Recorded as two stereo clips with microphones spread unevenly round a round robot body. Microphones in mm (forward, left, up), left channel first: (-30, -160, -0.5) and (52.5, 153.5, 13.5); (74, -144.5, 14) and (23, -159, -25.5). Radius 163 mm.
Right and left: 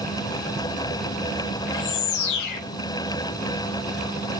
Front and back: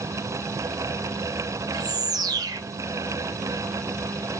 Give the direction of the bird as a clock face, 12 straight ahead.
5 o'clock.